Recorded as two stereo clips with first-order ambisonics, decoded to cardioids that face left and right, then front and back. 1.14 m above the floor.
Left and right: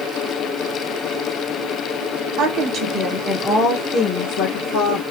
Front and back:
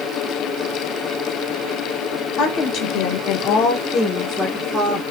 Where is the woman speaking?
50° right, 1.0 m; by 5.0 s 80° left, 1.1 m.